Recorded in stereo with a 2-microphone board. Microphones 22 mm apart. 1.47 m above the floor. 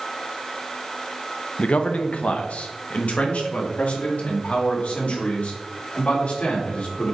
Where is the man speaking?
70° left (ahead or behind), 0.6 m; by 7.2 s 80° left, 3.5 m.